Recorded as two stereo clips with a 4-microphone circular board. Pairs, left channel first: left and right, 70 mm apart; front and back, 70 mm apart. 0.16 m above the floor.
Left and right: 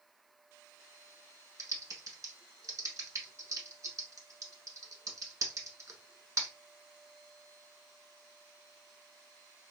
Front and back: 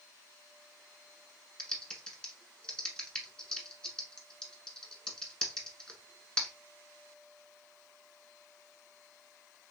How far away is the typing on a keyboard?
About 0.8 m.